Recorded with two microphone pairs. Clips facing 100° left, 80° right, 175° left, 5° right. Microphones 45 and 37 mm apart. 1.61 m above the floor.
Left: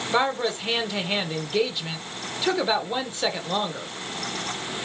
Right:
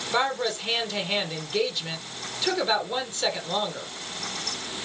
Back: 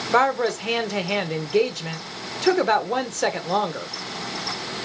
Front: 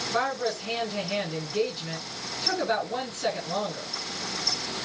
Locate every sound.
0.1 s a woman speaking: 175° right, 1.4 m